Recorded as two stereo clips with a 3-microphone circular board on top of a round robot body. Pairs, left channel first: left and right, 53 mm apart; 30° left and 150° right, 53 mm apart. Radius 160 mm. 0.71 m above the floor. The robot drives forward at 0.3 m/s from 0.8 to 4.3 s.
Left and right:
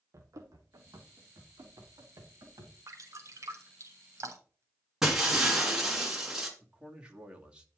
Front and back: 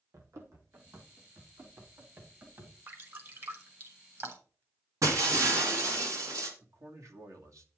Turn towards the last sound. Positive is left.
turn(degrees=-160)